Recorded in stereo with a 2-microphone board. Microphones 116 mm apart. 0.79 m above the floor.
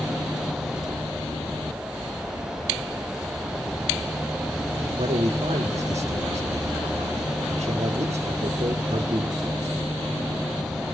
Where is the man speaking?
70° right (ahead or behind), 2 m.